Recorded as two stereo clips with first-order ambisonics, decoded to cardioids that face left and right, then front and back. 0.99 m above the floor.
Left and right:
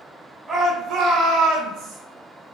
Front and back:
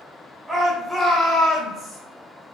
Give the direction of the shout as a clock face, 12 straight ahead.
4 o'clock.